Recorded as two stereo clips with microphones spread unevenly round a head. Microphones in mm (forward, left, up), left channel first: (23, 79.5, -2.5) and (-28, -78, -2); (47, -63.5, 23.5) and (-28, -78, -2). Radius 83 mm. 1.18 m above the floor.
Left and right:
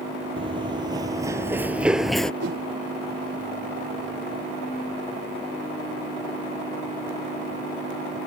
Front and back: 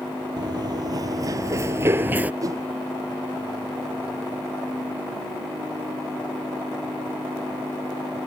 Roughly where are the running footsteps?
Behind right.